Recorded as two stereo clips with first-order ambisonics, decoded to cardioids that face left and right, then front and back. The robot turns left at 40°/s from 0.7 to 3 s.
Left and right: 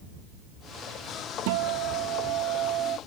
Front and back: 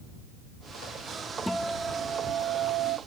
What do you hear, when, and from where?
1.5 s a guitar: 85° right; by 3.0 s 150° right